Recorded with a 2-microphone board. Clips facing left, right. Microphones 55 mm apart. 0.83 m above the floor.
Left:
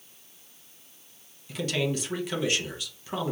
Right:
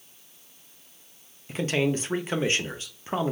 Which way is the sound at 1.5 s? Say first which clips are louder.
Right 3 dB; 30° right (ahead or behind).